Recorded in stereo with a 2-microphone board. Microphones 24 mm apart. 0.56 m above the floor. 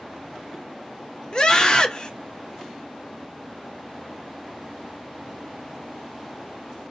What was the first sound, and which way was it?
A scream, 35° left (ahead or behind).